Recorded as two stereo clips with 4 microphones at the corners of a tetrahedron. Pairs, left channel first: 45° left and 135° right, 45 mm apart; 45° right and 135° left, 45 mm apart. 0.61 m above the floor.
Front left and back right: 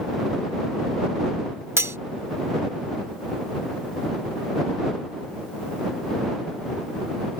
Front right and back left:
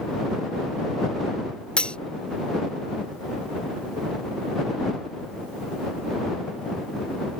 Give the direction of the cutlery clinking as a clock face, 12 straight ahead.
4 o'clock.